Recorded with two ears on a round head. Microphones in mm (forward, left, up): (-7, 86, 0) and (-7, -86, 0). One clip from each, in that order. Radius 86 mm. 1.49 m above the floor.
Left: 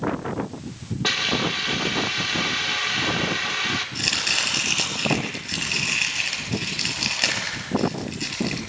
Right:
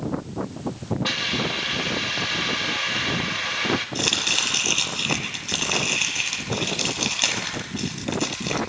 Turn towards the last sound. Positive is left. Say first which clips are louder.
# even
turn(degrees=-15)  # may be behind; listen again after turning